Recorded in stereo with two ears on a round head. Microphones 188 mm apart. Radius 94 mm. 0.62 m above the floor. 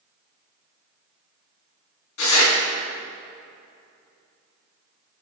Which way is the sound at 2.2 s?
75° left (ahead or behind).